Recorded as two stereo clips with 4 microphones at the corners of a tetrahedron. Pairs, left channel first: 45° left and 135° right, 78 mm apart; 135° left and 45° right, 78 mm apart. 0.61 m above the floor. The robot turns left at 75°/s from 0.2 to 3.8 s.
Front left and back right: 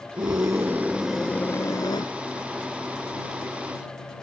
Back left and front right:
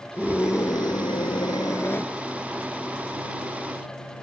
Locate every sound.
0.2 s a scream: 155° right; by 2.1 s 65° left